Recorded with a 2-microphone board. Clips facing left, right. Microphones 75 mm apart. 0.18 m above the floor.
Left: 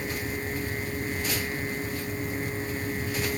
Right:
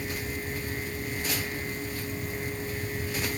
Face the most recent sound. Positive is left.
No sound to turn to.